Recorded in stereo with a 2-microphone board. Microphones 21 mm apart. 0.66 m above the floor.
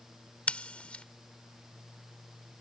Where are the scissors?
70° left (ahead or behind).